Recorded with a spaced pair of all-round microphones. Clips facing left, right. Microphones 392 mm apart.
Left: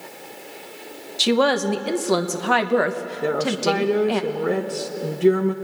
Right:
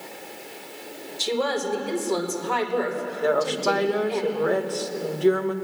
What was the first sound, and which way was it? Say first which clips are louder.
A woman speaking: left 6 dB; 80° left.